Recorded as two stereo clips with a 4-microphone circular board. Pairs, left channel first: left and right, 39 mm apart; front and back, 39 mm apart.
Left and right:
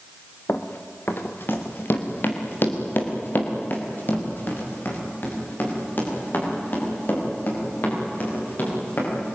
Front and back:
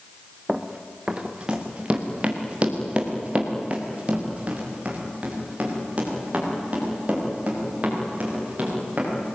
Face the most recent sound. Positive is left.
turn(degrees=125)